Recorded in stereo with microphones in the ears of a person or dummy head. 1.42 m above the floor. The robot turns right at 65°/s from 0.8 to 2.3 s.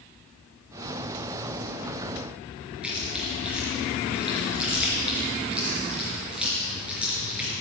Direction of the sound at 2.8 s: 5° right (ahead or behind).